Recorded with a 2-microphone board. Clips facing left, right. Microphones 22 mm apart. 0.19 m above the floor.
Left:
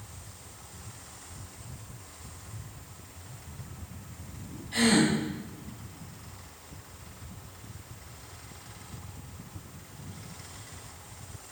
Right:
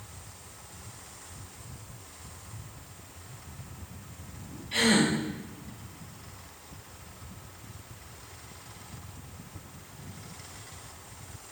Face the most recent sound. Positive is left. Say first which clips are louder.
# even
turn(degrees=-55)  # may be behind; listen again after turning